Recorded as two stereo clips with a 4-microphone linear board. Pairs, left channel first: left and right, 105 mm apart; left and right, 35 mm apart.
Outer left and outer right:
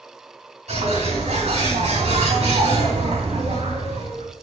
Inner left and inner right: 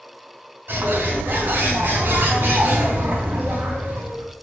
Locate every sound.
0.7 s a bird: 85° right, 3.5 m